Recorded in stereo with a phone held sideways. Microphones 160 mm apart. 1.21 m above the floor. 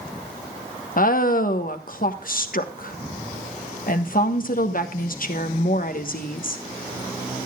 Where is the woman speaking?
60° left (ahead or behind), 1.2 m.